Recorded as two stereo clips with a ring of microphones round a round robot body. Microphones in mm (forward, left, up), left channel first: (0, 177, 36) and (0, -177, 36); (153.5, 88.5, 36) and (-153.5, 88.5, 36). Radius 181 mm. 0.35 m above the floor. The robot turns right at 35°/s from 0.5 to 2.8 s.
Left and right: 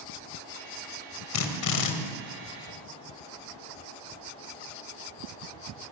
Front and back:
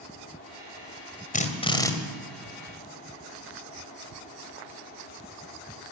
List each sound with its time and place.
1.3 s a drill: 60° left, 2.5 m; by 1.9 s 80° left, 2.5 m